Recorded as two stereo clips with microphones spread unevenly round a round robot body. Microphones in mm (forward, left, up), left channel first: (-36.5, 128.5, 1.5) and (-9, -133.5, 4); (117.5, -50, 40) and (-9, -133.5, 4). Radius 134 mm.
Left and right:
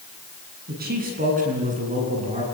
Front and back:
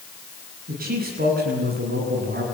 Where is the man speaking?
140° right, 9 m; by 2.4 s 150° right, 10 m.